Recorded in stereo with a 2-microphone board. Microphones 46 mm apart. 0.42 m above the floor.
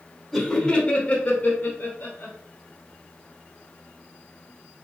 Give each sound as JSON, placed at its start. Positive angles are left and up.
{"t": 0.3, "sound": "laughter", "side_deg": 5, "distance_m": 1.0}